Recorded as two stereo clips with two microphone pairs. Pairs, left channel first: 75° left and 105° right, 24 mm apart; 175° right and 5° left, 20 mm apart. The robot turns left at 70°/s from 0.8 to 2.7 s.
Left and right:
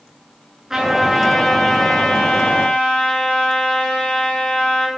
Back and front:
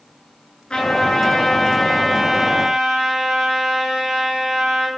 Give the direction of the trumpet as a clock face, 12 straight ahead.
6 o'clock.